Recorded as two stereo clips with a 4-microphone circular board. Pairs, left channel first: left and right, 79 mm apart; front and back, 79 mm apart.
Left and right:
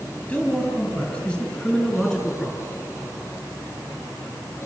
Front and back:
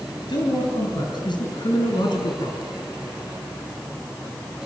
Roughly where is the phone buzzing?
I don't hear a phone buzzing.